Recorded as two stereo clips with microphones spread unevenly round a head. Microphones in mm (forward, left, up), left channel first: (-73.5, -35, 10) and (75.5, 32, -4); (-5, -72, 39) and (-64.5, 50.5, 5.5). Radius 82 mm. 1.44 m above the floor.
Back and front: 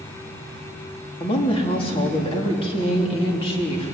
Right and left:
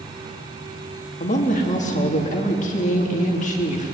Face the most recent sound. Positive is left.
turn(degrees=-95)